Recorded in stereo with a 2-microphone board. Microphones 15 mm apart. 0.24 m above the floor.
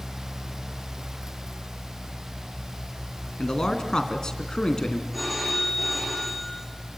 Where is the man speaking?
45° left (ahead or behind), 3 m.